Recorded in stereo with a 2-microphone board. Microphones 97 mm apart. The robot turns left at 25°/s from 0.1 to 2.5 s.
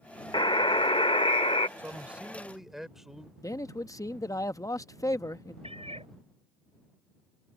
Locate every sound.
0.3 s a buzzer: 125° left; by 1.7 s 90° left
1.8 s a man speaking: 20° right (ahead or behind); by 3.3 s 5° right (ahead or behind)
3.4 s a man speaking: 35° left (ahead or behind)
5.6 s a cat meowing: 80° right